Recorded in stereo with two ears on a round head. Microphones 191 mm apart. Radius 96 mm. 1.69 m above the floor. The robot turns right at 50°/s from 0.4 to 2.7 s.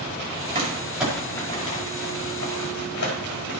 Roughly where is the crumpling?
Right.